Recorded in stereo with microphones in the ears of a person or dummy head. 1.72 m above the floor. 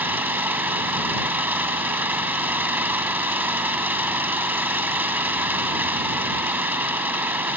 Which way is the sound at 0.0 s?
Centre (ahead or behind).